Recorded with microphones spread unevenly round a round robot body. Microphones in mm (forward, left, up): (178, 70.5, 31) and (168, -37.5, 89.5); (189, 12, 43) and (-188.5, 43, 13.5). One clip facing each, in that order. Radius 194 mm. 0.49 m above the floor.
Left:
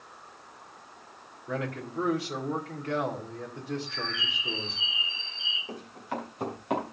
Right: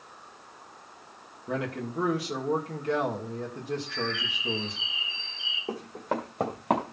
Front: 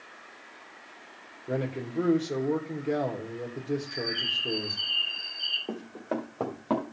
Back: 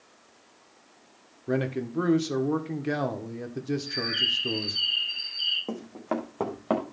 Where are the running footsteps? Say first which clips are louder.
Right 6 dB, back 1 dB; 130° right, 1.8 m; by 6.8 s 110° right, 2.5 m.